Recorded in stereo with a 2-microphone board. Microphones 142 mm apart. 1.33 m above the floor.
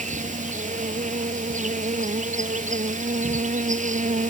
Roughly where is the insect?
Right.